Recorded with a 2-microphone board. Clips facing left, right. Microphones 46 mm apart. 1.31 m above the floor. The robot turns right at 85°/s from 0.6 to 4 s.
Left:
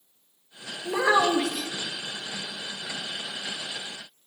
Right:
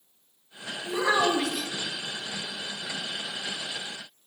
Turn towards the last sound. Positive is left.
turn(degrees=15)